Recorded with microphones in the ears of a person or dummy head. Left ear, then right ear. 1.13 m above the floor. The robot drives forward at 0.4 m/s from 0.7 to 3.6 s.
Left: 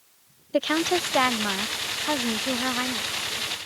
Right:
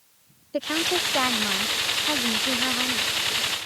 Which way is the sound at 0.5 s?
20° left (ahead or behind).